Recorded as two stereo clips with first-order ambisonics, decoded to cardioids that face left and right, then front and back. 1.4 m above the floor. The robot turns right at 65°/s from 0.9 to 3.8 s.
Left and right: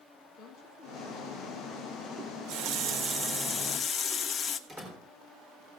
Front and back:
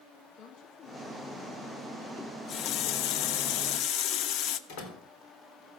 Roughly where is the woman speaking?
Ahead left.